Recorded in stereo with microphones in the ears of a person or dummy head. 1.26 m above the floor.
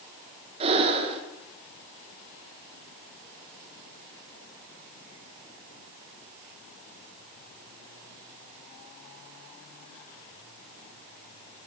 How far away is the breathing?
About 0.9 m.